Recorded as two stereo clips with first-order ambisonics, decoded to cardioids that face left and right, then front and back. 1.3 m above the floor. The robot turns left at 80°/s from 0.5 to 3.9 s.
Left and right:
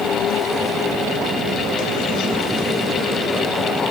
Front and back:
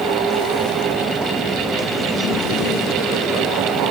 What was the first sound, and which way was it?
Only background noise.